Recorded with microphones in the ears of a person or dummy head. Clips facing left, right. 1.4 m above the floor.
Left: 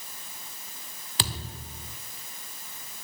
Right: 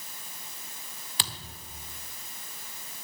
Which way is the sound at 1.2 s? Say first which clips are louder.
Left 7 dB; 55° left (ahead or behind).